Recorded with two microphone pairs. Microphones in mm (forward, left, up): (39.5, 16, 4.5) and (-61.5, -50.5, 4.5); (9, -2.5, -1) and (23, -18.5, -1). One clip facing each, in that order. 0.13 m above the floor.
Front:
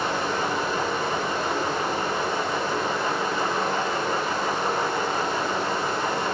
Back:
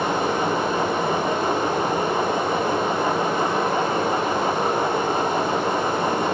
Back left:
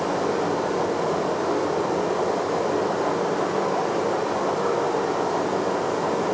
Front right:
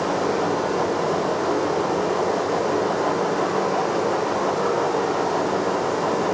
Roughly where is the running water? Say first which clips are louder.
Back 4 dB, front right 2 dB; right.